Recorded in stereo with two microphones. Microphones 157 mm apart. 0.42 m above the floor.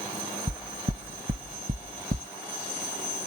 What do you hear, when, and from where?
0.5 s knocking: 70° right (ahead or behind)